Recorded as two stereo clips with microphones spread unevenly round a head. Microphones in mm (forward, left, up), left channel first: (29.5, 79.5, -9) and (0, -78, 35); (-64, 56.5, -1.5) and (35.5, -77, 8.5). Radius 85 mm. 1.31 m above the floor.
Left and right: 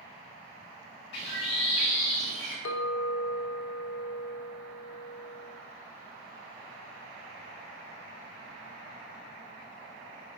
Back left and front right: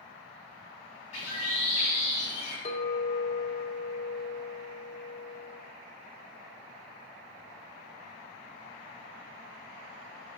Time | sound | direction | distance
1.1 | a bird | 70° left | 2.5 m
2.6 | a clink | 70° left | 0.9 m